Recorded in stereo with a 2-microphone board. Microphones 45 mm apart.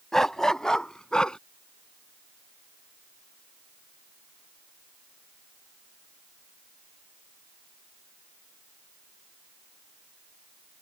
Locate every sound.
0.1 s a dog barking: 10° left (ahead or behind); by 1.4 s 20° left (ahead or behind)